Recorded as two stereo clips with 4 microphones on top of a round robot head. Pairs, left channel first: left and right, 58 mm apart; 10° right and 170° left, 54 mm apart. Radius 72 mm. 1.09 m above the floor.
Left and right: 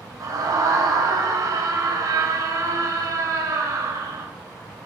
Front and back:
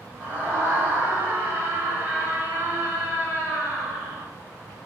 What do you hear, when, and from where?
0.2 s a scream: 120° right, 7 m